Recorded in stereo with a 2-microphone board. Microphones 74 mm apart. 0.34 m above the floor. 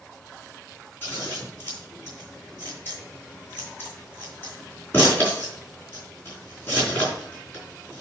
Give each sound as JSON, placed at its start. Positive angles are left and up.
{"t": 1.0, "sound": "scissors", "side_deg": 30, "distance_m": 4.5}